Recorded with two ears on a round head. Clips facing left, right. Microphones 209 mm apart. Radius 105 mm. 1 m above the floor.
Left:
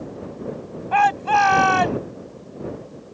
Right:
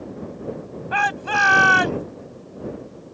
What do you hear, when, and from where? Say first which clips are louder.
0.9 s a shout: left 6 dB; 15° right (ahead or behind); by 2.0 s 20° right (ahead or behind)